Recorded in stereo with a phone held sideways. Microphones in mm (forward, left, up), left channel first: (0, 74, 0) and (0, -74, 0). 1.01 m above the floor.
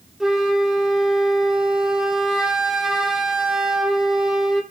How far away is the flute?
About 1.2 m.